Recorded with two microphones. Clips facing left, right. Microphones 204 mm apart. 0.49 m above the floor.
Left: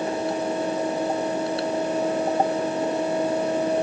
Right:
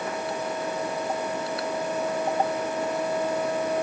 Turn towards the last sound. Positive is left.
No sound to turn to.